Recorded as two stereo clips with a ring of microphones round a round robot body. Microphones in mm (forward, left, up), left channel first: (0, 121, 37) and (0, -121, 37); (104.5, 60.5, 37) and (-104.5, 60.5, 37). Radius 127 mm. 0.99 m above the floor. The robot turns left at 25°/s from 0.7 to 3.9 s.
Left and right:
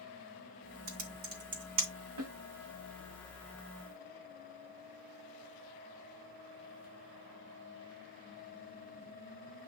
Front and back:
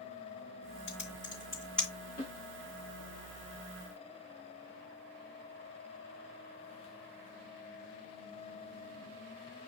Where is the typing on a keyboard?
65° right, 2 m; by 1.9 s 90° right, 2 m.